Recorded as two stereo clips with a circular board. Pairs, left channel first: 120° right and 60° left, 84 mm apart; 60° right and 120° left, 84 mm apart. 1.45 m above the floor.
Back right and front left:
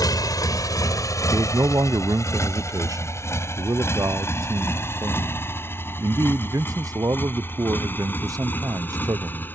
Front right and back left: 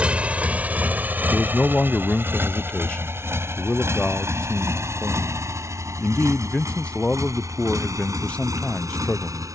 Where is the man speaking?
15° left.